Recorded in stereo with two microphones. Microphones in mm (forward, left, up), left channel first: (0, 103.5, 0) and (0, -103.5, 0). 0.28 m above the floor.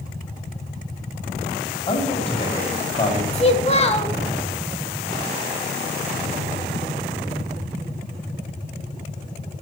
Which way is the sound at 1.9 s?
25° left (ahead or behind).